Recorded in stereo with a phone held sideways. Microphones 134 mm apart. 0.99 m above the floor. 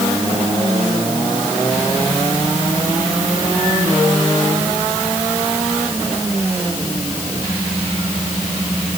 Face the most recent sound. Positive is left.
No sound to turn to.